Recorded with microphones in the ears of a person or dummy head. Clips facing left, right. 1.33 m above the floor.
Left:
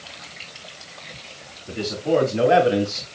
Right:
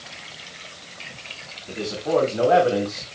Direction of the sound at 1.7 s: 20° left (ahead or behind).